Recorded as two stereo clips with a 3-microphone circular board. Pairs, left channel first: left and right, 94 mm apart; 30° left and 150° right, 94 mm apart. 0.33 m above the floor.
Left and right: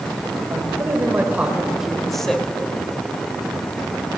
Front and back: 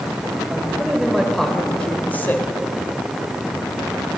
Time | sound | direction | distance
0.5 | a man speaking | 85° right | 1.3 m